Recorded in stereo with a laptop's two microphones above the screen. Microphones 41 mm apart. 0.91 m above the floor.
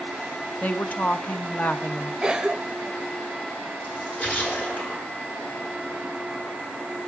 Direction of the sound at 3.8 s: 40° left (ahead or behind).